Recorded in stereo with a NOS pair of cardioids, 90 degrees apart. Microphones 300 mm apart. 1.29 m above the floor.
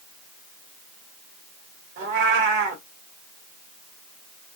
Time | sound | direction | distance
2.0 | a cat meowing | 45° right | 1.4 m